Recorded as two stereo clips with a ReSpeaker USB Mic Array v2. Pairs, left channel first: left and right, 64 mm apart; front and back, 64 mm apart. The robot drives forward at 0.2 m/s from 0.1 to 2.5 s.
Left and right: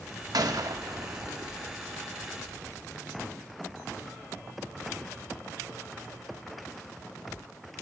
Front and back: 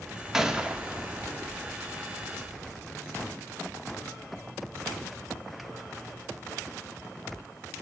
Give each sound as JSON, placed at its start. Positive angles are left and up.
{"t": 0.3, "sound": "a gunshot", "azimuth_deg": -100, "distance_m": 0.6}